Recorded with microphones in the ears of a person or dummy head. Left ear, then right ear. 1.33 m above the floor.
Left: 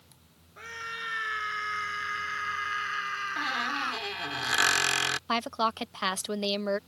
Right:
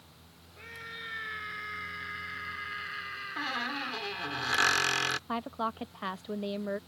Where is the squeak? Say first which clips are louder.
Left 2 dB; 5° left (ahead or behind).